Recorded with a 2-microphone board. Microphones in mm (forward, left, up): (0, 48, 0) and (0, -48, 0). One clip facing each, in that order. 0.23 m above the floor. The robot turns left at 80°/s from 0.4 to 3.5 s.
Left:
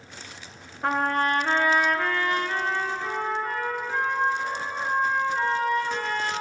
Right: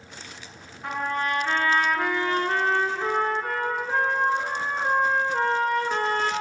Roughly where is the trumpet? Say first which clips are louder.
Left 4 dB; left.